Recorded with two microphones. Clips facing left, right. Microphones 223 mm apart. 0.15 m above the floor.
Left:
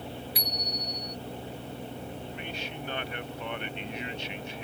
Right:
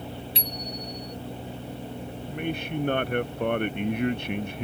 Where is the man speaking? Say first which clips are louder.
Right 8 dB; 55° right (ahead or behind).